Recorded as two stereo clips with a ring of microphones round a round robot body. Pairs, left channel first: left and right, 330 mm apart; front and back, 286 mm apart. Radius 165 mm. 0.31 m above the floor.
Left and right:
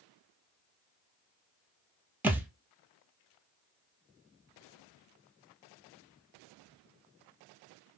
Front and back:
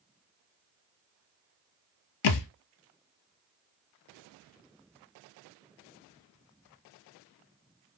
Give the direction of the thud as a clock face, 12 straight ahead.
12 o'clock.